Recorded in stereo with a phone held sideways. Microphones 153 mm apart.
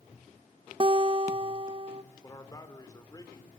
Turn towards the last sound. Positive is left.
turn(degrees=25)  # may be behind; listen again after turning